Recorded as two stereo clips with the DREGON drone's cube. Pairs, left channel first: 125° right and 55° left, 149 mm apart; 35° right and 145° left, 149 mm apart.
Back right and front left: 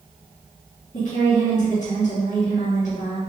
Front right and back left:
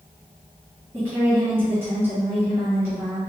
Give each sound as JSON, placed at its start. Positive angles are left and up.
{"t": 0.9, "sound": "a woman speaking", "azimuth_deg": -145, "distance_m": 1.8}